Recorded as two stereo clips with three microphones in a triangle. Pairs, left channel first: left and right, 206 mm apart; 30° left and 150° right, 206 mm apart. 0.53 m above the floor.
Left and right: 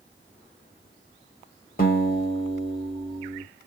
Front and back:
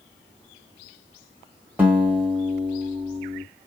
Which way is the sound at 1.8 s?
130° left.